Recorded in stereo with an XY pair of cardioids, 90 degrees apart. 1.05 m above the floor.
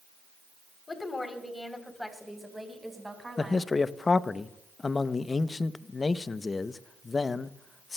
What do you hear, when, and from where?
0.9 s a woman speaking: 35° left, 3.5 m; by 3.7 s 20° right, 5.5 m
3.4 s a man speaking: 35° left, 0.6 m